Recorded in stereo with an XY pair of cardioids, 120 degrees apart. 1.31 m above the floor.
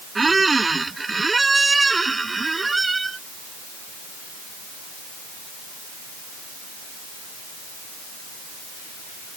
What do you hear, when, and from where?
0.1 s a squeak: 15° right